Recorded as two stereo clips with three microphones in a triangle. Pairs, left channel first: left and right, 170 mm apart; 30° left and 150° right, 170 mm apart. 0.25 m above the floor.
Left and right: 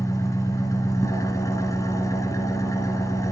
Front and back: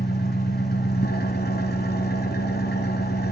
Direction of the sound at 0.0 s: 20° left.